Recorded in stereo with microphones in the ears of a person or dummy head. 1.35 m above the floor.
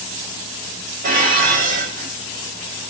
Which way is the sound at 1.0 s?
45° right (ahead or behind).